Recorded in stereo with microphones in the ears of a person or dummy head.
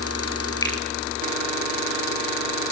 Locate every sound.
0.6 s a finger snap: 15° left (ahead or behind), 7.5 m